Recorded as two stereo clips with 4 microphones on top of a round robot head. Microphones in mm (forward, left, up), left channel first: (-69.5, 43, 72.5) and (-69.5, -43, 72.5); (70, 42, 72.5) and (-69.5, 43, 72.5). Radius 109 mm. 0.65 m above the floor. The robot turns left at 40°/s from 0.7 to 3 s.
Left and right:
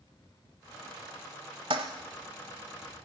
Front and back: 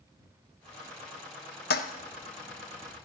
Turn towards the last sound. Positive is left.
turn(degrees=-80)